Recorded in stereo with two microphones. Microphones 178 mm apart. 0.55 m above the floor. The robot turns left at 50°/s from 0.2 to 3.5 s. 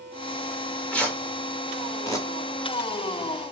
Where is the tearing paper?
Centre (ahead or behind), 1.1 m; by 2.3 s 20° left (ahead or behind), 1.1 m.